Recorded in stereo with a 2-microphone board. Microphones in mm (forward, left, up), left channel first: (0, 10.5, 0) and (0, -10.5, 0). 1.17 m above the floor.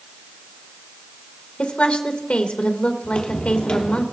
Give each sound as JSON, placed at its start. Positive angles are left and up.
{"t": 1.6, "sound": "a woman speaking", "side_deg": 80, "distance_m": 1.2}
{"t": 3.0, "sound": "footsteps", "side_deg": 50, "distance_m": 2.0}